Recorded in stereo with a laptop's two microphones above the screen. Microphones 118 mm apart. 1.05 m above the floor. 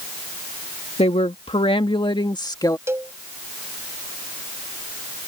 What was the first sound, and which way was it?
A woman speaking, 60° left (ahead or behind).